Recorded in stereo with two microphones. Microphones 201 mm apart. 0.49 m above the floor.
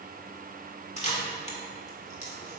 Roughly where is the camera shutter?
Left.